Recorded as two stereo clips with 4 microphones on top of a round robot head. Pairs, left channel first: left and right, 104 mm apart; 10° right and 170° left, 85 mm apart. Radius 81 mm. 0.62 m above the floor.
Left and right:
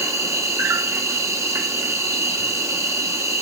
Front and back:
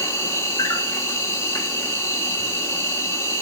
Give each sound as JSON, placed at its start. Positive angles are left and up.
{"t": 0.0, "sound": "an insect", "azimuth_deg": -50, "distance_m": 1.9}